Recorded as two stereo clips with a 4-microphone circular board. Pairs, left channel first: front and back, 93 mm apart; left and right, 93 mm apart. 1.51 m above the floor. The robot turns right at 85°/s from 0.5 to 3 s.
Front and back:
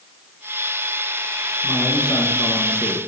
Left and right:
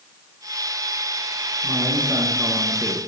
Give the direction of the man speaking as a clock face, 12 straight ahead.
3 o'clock.